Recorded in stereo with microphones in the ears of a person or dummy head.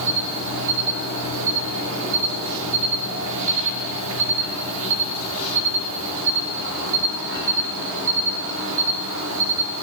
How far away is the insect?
About 1.1 m.